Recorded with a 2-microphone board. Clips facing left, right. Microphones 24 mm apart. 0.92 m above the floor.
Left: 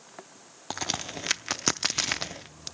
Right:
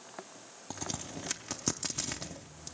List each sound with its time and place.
0.7 s a crack: 55° left (ahead or behind), 0.5 m